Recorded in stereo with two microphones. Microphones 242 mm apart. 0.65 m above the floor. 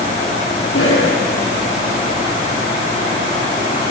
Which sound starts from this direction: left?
A cough, at 0.7 s.